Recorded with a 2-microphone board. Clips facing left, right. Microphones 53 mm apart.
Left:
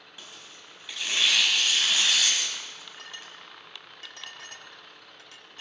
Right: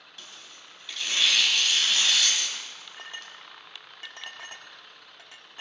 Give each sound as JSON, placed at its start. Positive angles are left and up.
{"t": 0.2, "sound": "tearing paper", "side_deg": 15, "distance_m": 3.5}
{"t": 3.0, "sound": "a clink", "side_deg": -25, "distance_m": 1.2}